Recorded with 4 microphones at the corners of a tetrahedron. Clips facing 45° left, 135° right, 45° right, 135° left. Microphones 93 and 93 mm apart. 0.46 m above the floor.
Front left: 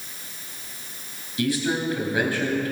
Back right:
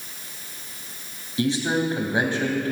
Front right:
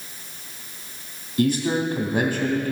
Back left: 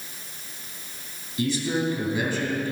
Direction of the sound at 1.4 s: 70° right.